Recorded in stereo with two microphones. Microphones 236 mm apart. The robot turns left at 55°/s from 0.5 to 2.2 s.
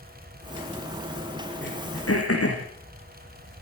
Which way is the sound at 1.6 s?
50° left (ahead or behind).